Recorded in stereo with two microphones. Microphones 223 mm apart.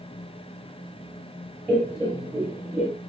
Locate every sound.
1.7 s laughter: 5° right (ahead or behind), 2 m; by 2.9 s 15° right (ahead or behind), 1.6 m